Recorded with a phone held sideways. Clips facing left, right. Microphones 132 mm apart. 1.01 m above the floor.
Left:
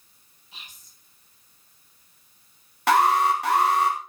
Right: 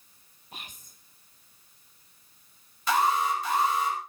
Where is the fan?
No fan in this recording.